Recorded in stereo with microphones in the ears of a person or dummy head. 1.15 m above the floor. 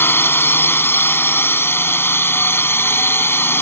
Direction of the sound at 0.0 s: 15° left (ahead or behind).